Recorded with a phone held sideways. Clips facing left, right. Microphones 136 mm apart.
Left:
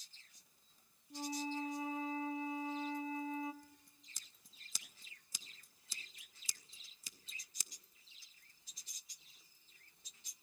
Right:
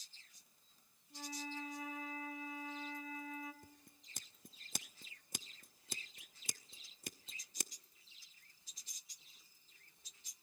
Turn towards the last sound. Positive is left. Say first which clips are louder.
# right 2 dB
turn(degrees=-60)  # may be behind; listen again after turning